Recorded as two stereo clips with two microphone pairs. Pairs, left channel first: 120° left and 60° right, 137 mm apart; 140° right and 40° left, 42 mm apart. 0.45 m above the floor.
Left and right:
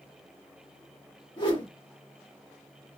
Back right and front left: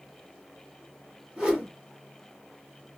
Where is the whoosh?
100° left, 1.7 m.